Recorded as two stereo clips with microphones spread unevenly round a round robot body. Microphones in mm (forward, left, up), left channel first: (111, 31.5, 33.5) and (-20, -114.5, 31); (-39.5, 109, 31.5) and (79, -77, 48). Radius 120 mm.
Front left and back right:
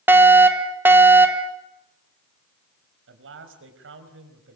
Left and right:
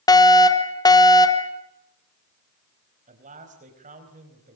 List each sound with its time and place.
0.1 s a fire alarm: 160° left, 1.7 m
3.1 s a man speaking: 115° right, 4.5 m